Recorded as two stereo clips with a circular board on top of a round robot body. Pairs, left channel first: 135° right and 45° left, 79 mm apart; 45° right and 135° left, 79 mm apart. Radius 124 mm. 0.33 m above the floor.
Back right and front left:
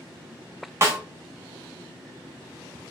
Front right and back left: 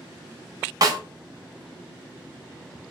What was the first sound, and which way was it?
A snare drum, 100° left.